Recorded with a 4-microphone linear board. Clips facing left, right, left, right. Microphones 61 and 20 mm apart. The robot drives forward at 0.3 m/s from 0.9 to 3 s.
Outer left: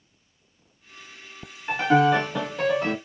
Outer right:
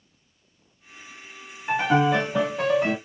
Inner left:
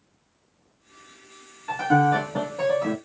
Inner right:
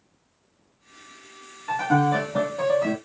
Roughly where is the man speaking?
No man speaking in this recording.